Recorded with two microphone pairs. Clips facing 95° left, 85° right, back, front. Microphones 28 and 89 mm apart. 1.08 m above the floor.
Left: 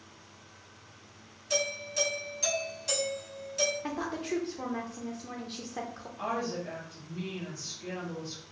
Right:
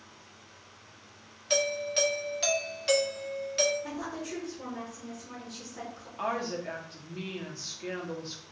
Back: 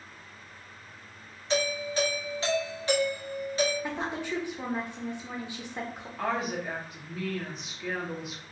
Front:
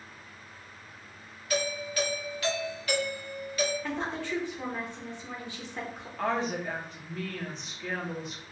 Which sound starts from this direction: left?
A woman speaking, at 3.8 s.